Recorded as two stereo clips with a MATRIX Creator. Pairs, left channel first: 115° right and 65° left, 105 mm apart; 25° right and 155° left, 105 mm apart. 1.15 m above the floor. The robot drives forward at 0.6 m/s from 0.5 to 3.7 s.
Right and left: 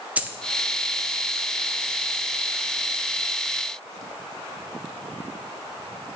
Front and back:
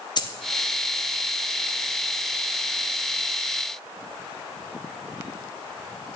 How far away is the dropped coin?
About 0.6 m.